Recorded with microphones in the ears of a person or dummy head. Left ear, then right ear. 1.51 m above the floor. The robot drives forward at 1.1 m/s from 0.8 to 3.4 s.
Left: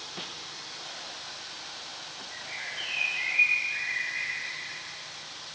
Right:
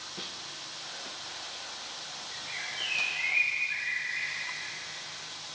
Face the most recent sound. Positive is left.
turn(degrees=0)  # may be behind; listen again after turning